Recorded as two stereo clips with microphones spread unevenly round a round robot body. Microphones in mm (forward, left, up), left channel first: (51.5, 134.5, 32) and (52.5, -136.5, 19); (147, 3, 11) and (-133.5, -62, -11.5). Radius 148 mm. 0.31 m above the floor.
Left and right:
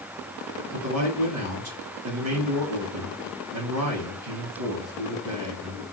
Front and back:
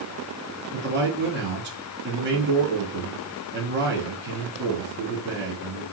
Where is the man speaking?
120° right, 4 m.